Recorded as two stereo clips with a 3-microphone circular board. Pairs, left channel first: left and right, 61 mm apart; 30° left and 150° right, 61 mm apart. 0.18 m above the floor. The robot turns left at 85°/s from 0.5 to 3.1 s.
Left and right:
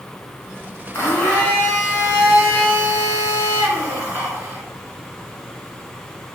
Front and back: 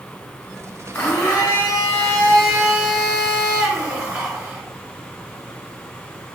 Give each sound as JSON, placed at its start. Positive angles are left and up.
{"t": 0.9, "sound": "a blender", "azimuth_deg": 85, "distance_m": 1.4}